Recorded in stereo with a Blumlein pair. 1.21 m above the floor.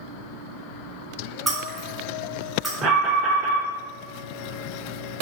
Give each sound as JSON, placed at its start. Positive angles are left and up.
{"t": 1.5, "sound": "breaking glass", "azimuth_deg": -10, "distance_m": 1.4}
{"t": 2.8, "sound": "an alarm", "azimuth_deg": -25, "distance_m": 0.8}